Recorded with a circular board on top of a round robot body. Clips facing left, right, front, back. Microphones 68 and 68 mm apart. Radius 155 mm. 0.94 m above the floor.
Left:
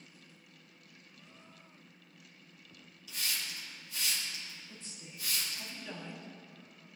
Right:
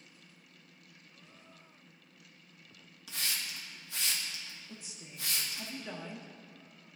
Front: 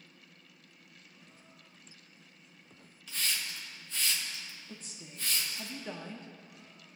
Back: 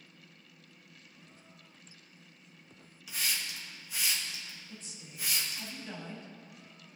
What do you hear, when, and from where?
3.1 s a hiss: 100° right, 1.6 m
4.7 s a woman speaking: 20° right, 1.4 m